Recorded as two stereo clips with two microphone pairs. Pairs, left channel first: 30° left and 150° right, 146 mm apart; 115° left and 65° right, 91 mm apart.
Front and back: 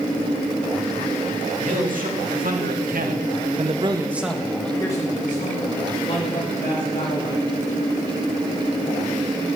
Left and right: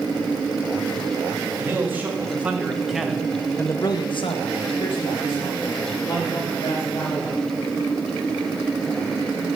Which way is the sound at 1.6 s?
130° right.